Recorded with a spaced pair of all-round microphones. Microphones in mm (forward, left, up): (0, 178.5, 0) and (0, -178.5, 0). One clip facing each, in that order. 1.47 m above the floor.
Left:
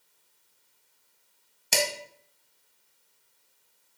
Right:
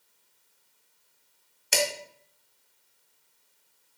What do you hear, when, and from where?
1.7 s dishes clattering: 50° left (ahead or behind), 0.8 m